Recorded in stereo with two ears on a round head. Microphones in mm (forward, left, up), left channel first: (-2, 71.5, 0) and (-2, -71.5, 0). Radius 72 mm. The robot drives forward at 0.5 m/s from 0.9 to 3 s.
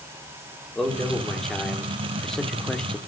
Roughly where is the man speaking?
Centre.